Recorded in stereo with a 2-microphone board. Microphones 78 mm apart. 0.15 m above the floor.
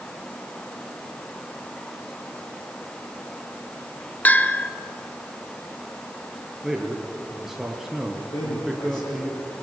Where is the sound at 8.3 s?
60° left (ahead or behind), 10 m.